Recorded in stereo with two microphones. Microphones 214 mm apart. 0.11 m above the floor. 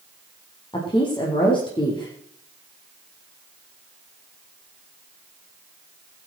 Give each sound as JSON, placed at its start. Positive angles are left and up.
{"t": 0.7, "sound": "a woman speaking", "side_deg": 25, "distance_m": 5.0}